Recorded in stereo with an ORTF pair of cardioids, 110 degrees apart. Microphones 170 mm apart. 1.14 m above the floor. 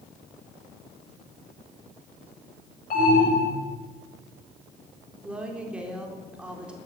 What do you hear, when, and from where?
2.9 s an alarm: 50° left, 8 m
5.2 s a woman speaking: 5° right, 3.5 m